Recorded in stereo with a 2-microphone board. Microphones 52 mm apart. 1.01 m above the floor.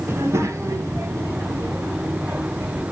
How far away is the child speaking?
About 0.7 m.